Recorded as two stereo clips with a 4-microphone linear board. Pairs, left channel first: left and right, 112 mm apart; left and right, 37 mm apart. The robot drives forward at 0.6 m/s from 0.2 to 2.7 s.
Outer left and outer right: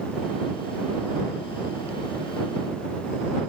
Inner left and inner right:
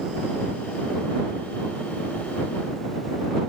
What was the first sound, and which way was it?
Only background noise.